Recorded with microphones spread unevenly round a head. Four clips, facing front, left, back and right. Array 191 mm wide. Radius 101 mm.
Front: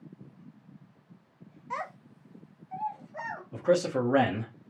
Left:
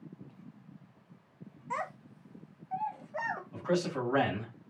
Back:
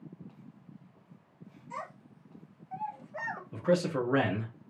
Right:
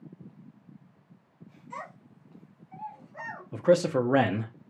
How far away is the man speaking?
About 0.8 m.